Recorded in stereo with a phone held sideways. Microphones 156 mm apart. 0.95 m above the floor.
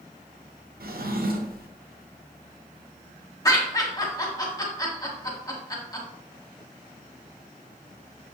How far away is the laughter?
About 1.0 m.